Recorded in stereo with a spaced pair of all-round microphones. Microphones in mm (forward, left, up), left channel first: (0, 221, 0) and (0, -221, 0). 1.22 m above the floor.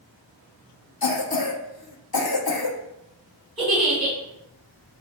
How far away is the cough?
About 0.7 m.